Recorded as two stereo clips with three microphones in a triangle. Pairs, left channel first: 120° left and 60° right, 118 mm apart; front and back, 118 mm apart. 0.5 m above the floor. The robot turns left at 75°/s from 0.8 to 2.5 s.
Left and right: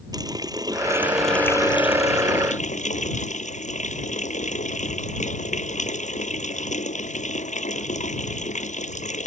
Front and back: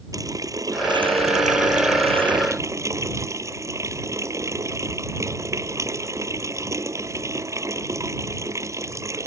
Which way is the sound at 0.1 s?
115° right.